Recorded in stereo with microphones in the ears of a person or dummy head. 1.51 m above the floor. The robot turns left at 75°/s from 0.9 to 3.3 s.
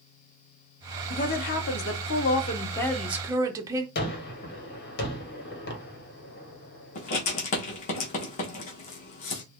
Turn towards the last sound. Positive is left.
turn(degrees=45)  # may be behind; listen again after turning